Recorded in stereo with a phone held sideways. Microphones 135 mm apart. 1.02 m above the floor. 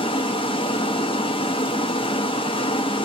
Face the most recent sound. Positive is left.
turn(degrees=40)  # may be behind; listen again after turning